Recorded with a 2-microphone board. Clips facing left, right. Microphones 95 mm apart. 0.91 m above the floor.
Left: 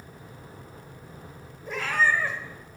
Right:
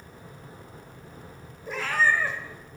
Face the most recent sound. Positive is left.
turn(degrees=-5)  # may be behind; listen again after turning